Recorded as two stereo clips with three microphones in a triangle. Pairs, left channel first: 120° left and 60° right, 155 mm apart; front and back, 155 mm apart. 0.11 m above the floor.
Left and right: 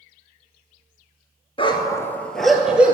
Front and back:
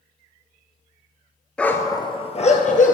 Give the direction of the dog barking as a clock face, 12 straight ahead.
9 o'clock.